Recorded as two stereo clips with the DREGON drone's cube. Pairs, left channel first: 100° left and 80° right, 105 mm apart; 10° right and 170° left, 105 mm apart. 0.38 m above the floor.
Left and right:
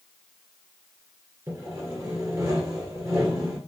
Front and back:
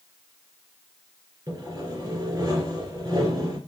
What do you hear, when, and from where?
1.5 s sawing: 140° right, 1.9 m